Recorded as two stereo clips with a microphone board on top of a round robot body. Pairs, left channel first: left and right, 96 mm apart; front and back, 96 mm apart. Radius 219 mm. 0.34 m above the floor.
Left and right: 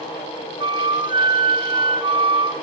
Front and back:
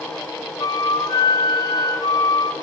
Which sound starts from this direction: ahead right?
A flute, at 0.6 s.